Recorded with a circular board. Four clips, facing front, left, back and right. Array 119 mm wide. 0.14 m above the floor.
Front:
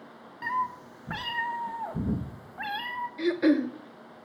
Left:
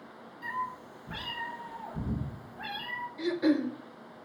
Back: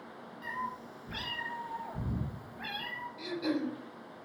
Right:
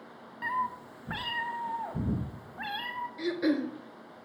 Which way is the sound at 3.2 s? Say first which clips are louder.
Left 2 dB, front 10 dB; 10° right.